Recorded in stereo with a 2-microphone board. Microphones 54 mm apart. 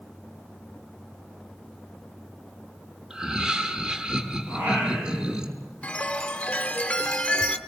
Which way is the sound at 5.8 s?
25° left (ahead or behind).